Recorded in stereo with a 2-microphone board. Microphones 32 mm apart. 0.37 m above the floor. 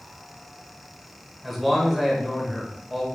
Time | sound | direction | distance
1.4 | a man speaking | centre (ahead or behind) | 1.2 m